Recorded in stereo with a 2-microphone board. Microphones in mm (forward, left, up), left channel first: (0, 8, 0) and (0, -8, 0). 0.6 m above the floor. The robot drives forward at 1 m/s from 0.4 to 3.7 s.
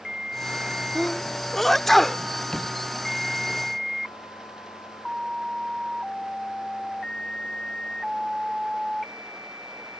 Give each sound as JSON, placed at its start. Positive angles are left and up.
{"t": 0.9, "sound": "a sneeze", "side_deg": 15}
{"t": 2.5, "sound": "a door slam", "side_deg": 50}